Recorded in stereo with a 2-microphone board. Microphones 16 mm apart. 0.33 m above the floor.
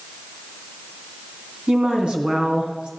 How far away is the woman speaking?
About 3 m.